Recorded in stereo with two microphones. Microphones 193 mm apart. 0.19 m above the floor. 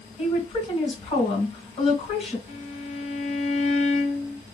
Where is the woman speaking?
30° left (ahead or behind), 2.5 m.